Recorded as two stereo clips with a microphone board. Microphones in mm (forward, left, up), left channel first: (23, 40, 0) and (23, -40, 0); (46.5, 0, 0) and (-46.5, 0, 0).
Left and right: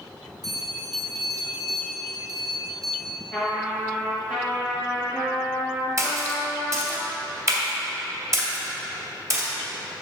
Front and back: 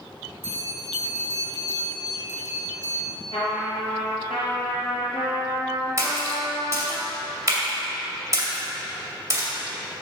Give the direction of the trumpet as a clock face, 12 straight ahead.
12 o'clock.